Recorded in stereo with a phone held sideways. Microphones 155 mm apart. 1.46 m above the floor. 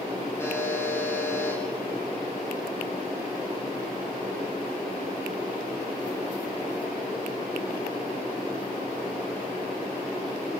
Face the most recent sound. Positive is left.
turn(degrees=15)  # may be behind; listen again after turning